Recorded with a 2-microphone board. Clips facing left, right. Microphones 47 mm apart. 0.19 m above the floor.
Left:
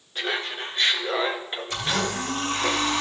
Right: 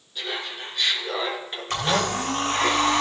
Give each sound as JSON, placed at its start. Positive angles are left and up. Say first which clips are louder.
{"t": 0.1, "sound": "laughter", "louder": "left 3 dB", "side_deg": 50, "distance_m": 2.0}
{"t": 1.7, "sound": "a blender", "louder": "right 4 dB", "side_deg": -65, "distance_m": 3.0}